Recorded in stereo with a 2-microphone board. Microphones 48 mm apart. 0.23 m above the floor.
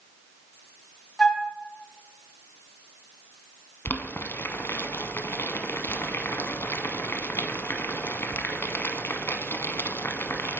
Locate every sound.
1.2 s a flute: 15° left (ahead or behind), 1.0 m
3.9 s boiling: 60° left (ahead or behind), 0.6 m